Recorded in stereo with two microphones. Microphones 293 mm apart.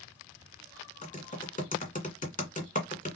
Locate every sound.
1.0 s typing on a keyboard: 30° left (ahead or behind), 1.7 m